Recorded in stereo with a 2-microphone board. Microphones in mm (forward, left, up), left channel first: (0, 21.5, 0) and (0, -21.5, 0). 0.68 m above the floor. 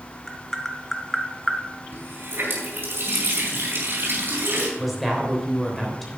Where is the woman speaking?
Centre (ahead or behind), 3 m.